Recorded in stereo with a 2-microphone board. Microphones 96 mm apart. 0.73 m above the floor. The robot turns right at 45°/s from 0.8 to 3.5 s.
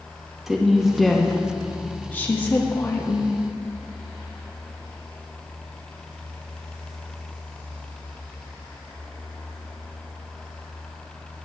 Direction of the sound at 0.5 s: 5° right (ahead or behind).